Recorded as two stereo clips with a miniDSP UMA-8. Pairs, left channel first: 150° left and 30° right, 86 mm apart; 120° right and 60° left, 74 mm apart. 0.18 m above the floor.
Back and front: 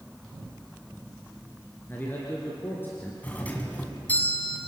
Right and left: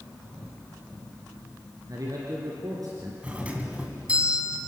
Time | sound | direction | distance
1.9 | a man speaking | 85° left | 3 m
3.2 | a doorbell | 110° left | 2 m